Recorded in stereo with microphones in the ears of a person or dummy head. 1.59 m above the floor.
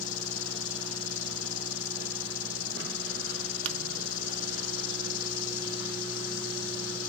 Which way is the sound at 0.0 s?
60° left (ahead or behind).